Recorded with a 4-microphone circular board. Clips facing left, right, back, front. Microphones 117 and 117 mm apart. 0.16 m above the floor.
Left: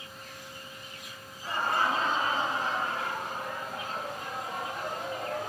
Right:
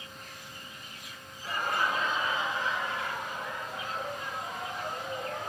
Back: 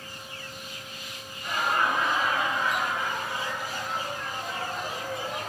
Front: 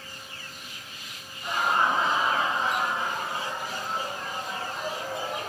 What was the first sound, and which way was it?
Laughter, 50° left.